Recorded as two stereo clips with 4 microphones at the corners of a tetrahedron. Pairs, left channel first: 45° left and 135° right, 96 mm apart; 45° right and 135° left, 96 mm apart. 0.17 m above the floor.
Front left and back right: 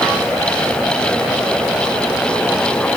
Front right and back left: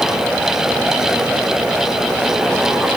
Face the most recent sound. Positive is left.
No sound to turn to.